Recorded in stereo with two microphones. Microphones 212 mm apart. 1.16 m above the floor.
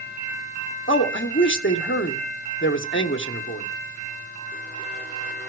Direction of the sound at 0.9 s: 65° left (ahead or behind).